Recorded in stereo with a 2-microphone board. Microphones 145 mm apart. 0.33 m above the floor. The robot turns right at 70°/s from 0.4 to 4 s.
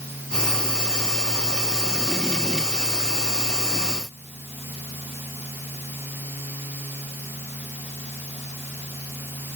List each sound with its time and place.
Only background noise.